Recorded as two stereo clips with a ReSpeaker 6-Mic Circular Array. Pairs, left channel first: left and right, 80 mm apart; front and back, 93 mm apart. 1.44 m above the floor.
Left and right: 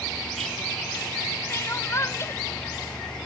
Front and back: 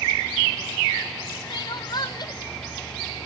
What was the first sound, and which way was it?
Crying, 35° left.